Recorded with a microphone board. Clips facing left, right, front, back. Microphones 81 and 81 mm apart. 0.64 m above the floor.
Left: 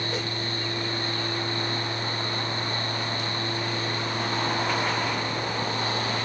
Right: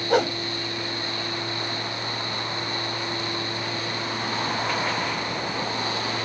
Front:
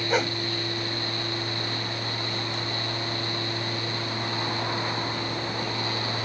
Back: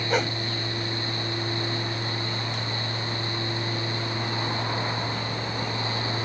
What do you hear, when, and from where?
0.1 s a whoosh: 85° right